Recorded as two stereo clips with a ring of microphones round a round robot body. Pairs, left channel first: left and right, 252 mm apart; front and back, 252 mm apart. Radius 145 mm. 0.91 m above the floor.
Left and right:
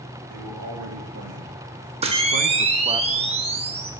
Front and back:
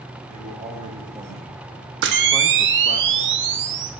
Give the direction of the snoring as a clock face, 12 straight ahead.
I don't hear snoring.